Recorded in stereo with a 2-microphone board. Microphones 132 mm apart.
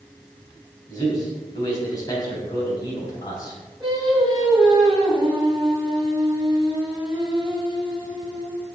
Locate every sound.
0.9 s a man speaking: 30° left (ahead or behind), 3.5 m
3.8 s singing: 35° right (ahead or behind), 4 m